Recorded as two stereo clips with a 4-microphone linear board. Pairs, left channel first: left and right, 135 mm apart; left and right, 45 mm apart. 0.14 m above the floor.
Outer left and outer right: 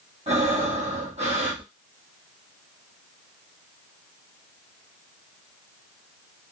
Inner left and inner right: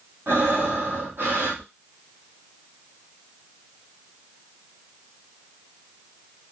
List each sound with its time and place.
0.3 s breathing: 55° right (ahead or behind), 1.2 m